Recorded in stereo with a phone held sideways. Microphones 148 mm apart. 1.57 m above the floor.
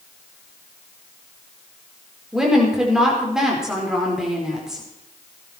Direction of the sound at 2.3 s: 5° right (ahead or behind).